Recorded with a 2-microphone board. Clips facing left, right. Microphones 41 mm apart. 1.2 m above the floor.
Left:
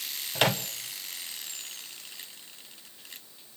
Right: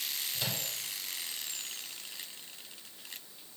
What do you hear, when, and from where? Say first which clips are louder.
0.3 s a microwave: left 14 dB; 80° left, 1.0 m